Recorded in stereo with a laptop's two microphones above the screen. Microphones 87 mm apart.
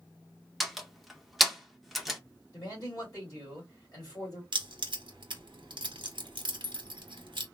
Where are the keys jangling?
70° right (ahead or behind), 0.8 m.